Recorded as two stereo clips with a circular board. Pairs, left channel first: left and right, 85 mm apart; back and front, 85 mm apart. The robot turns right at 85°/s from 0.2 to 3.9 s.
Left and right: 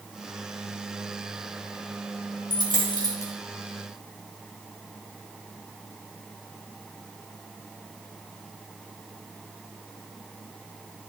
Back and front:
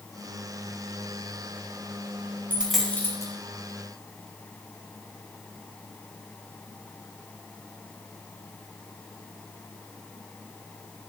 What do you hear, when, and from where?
2.5 s a dropped coin: 70° left, 3.5 m; by 3.3 s 140° left, 3.5 m